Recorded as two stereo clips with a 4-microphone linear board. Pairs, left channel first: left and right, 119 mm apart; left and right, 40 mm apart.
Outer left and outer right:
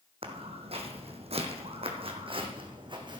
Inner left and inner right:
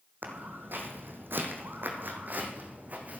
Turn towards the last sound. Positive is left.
turn(degrees=-40)  # may be behind; listen again after turning